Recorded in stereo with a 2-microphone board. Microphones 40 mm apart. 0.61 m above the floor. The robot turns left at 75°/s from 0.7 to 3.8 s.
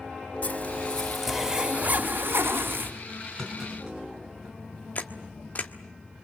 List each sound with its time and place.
0.4 s a zipper: 40° left, 3.5 m; by 2.9 s 125° right, 3.5 m
3.4 s a clunk: 15° left (ahead or behind), 5.5 m; by 4.5 s 15° right (ahead or behind), 5.5 m
5.0 s a camera shutter: 45° left (ahead or behind), 1.5 m